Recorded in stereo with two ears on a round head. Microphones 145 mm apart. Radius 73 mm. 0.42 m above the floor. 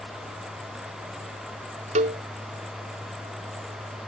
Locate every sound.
1.9 s a cowbell: 45° right (ahead or behind)